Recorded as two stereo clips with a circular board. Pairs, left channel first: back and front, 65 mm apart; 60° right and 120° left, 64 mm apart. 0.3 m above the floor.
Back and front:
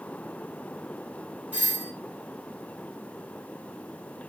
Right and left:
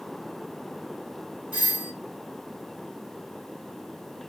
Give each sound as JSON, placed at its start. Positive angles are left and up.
{"t": 1.5, "sound": "a doorbell", "azimuth_deg": 55, "distance_m": 2.0}